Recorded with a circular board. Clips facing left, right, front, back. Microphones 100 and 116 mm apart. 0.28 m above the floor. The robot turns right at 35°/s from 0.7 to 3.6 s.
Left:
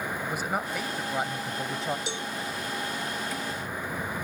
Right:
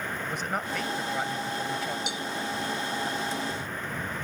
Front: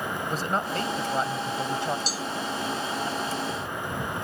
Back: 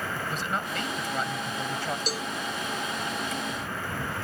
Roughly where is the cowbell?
Behind left.